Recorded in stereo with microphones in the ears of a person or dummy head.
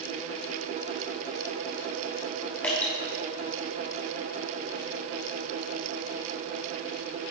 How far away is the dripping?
About 2.5 m.